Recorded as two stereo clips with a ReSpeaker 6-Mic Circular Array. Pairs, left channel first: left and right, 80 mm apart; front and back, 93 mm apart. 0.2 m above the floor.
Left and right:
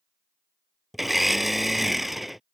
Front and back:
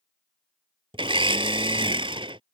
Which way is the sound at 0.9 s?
Straight behind.